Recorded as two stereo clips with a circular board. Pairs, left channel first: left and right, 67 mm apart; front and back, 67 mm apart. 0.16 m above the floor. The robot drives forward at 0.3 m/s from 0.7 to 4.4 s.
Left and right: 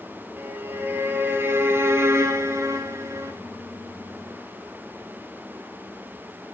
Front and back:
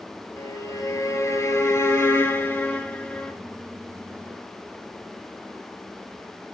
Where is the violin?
30° right, 1.2 m; by 3.3 s 75° right, 0.7 m.